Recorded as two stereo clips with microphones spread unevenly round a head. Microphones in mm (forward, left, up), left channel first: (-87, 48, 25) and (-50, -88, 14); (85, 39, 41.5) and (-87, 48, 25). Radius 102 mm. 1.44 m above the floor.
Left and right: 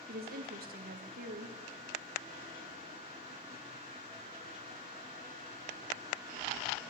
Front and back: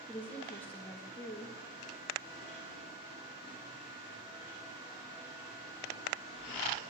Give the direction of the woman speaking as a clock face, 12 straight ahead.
3 o'clock.